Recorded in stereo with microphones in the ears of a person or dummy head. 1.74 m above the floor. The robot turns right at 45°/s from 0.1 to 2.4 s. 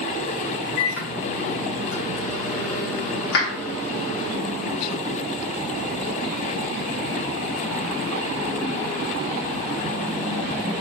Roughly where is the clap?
Left.